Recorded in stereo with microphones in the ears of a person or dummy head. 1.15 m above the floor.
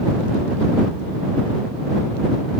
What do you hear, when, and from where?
Only background noise.